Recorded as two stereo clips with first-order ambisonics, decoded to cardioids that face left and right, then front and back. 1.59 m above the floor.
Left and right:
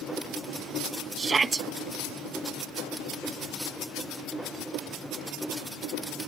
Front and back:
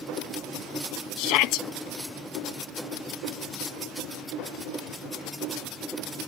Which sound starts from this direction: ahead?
A shout, at 1.2 s.